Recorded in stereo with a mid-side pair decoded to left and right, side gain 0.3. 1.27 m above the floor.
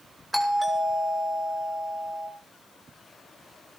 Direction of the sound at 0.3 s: 20° right.